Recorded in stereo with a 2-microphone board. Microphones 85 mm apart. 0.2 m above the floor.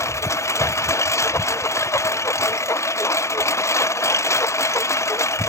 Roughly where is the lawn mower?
Left.